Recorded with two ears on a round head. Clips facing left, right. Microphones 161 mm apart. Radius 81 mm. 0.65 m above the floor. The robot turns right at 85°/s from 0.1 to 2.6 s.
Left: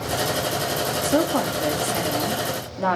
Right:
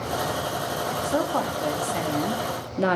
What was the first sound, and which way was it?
A woman speaking, 95° left.